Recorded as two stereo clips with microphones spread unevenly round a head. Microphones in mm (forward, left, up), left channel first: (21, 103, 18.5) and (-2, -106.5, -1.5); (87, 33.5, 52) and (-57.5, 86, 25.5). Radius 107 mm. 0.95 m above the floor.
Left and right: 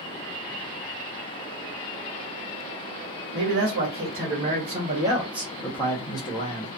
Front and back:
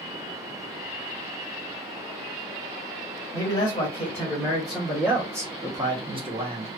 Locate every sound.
3.3 s a man speaking: 95° right, 1.4 m; by 6.8 s 135° left, 1.2 m